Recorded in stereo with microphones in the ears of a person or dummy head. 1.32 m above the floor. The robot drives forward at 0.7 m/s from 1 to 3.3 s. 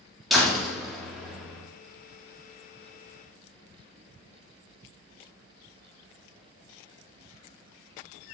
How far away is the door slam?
About 2 m.